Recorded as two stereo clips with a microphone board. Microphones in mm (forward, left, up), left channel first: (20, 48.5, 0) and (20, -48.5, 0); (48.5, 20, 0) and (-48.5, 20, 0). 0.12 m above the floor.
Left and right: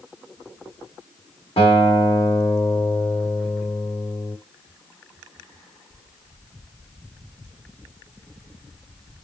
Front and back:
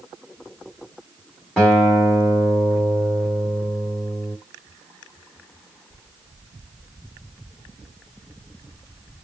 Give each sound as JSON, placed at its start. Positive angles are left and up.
{"t": 1.6, "sound": "a guitar", "azimuth_deg": 85, "distance_m": 2.5}